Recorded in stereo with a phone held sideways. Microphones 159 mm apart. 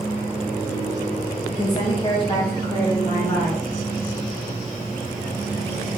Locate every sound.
1.5 s a woman speaking: 30° left (ahead or behind), 0.6 m; by 3.6 s 15° left (ahead or behind), 1.4 m